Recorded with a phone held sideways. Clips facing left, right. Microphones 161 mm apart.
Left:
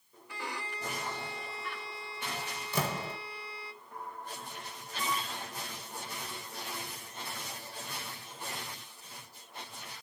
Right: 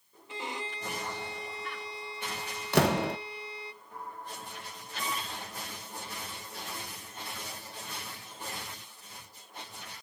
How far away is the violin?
About 1.2 m.